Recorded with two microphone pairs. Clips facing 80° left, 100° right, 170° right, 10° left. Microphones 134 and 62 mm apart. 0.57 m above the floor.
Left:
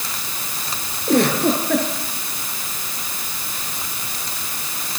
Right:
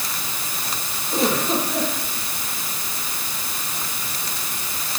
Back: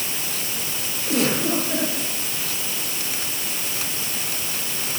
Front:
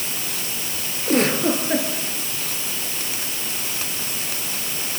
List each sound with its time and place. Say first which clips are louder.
1.1 s a giggle: left 5 dB, front 3 dB; 60° left, 9 m